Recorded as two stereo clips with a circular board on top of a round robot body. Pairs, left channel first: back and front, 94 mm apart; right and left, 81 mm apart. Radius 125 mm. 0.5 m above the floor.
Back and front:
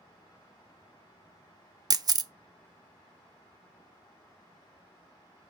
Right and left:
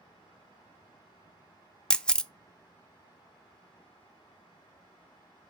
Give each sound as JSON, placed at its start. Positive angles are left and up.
{"t": 1.9, "sound": "a camera shutter", "azimuth_deg": -15, "distance_m": 0.5}